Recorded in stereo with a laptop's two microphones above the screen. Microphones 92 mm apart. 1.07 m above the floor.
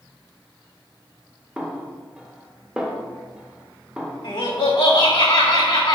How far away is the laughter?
About 2.5 m.